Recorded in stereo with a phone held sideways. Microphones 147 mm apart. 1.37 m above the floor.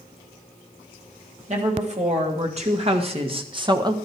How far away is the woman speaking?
About 3 m.